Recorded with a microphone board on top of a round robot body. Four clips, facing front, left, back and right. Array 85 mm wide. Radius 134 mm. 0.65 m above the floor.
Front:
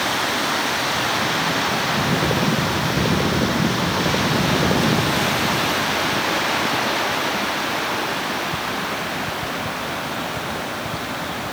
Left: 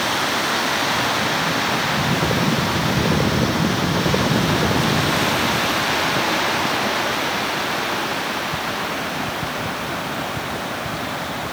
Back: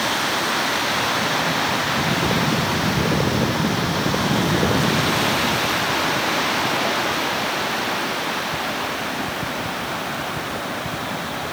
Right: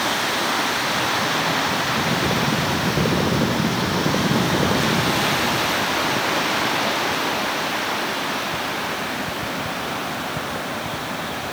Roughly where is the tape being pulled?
I don't hear tape being pulled.